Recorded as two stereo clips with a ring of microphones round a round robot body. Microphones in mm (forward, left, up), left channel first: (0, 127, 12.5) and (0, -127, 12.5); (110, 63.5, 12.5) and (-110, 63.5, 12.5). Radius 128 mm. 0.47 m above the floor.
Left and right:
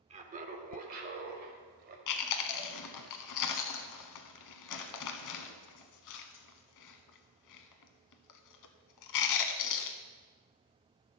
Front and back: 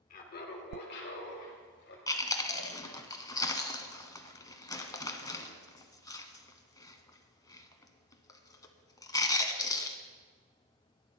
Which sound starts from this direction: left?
Chewing, at 2.1 s.